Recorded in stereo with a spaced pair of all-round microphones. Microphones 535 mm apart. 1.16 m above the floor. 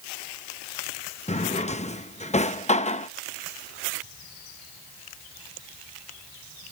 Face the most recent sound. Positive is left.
turn(degrees=15)  # may be behind; listen again after turning